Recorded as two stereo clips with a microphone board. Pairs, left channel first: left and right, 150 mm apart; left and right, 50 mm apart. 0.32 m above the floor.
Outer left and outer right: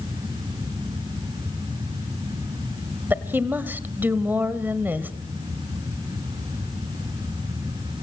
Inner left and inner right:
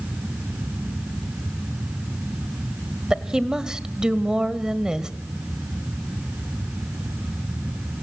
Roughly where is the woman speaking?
Centre.